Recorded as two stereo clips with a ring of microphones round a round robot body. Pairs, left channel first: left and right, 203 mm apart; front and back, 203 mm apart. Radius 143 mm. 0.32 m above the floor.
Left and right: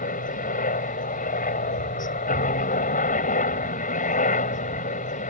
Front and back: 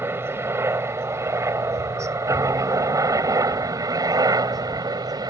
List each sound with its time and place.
0.0 s a helicopter: 110° left; by 5.3 s 120° left